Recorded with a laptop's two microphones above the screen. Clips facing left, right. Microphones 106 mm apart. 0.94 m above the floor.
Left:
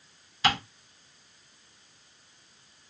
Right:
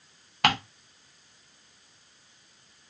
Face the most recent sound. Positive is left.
turn(degrees=-65)  # may be behind; listen again after turning